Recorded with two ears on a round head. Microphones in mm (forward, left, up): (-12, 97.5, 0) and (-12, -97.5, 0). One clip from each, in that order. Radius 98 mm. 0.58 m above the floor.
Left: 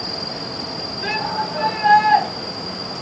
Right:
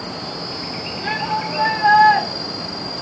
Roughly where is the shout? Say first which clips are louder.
Right 1 dB; left.